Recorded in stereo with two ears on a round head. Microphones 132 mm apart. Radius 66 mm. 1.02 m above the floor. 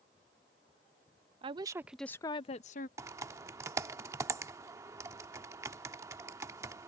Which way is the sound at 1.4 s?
40° right (ahead or behind).